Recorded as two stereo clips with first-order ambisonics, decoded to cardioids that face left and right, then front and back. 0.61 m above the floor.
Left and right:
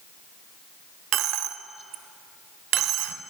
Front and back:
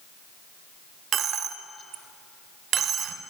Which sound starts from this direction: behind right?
A dropped coin, at 1.1 s.